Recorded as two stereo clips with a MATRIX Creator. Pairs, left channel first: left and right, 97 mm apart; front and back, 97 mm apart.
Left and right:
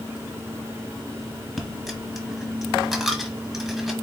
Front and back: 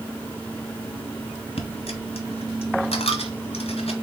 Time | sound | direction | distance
1.6 | a dropped coin | straight ahead | 1.4 m